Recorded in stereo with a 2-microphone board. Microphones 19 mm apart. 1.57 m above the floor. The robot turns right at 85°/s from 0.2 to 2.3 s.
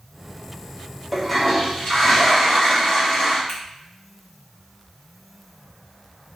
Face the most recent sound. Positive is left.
turn(degrees=75)  # may be behind; listen again after turning